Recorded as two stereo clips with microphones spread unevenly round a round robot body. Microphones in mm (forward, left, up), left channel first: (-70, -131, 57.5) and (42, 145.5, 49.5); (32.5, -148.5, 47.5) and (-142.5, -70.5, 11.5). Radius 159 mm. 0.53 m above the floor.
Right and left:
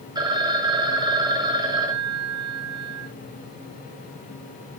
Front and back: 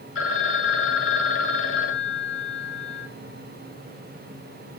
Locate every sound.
0.1 s a phone ringing: 10° right, 1.5 m